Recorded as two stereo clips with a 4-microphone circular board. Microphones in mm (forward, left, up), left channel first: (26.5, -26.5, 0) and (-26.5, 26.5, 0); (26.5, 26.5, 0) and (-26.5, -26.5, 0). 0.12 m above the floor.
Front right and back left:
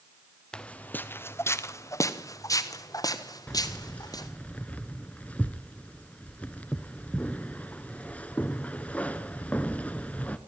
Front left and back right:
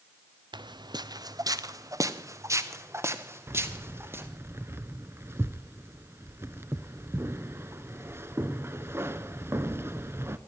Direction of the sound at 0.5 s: 125° right.